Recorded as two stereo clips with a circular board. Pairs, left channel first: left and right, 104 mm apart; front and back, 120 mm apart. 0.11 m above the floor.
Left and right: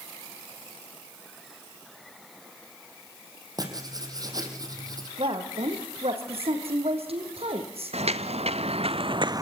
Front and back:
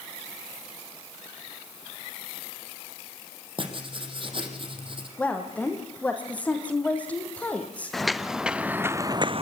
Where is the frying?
No frying in this recording.